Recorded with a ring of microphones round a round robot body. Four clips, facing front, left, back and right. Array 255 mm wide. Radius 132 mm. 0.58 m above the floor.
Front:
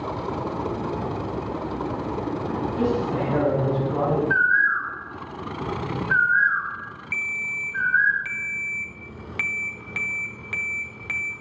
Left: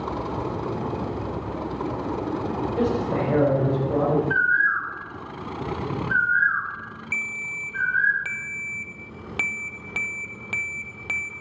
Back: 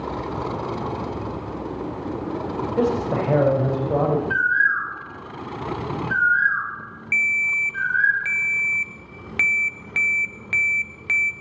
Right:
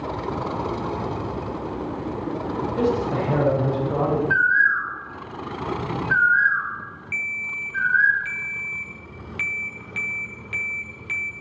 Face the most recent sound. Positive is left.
turn(degrees=120)